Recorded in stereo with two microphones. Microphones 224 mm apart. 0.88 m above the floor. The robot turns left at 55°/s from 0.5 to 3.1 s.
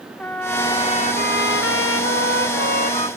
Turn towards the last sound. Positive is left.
turn(degrees=30)